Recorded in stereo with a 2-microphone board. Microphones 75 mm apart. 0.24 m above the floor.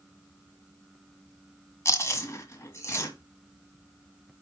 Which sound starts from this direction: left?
Chewing, at 1.9 s.